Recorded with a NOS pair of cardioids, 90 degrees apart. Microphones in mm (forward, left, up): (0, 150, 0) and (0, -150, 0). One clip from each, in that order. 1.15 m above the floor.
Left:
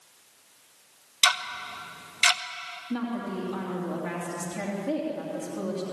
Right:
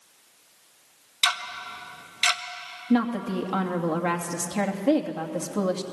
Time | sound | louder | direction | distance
1.2 | ticking | left 1 dB | 15° left | 1.3 m
2.9 | a woman speaking | right 8 dB | 65° right | 2.5 m